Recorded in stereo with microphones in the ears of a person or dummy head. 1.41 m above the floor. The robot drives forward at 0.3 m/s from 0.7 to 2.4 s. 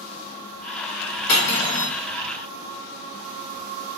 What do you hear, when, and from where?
1.3 s cutlery clinking: 55° left (ahead or behind), 1.3 m; by 1.9 s 50° left (ahead or behind), 1.4 m